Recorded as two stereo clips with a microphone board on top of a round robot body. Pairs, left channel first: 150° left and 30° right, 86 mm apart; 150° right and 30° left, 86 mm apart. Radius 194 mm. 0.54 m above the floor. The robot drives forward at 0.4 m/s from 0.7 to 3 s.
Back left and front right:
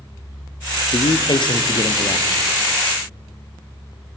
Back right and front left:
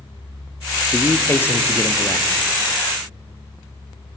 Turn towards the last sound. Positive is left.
turn(degrees=160)